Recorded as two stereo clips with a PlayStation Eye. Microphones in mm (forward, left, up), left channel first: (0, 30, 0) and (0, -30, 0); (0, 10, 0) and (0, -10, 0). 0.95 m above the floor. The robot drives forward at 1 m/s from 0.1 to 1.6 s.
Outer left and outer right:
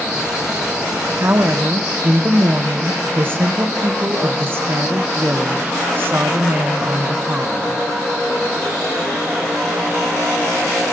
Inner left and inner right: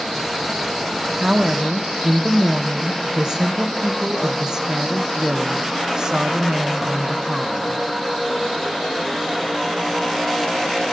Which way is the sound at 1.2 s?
40° right (ahead or behind).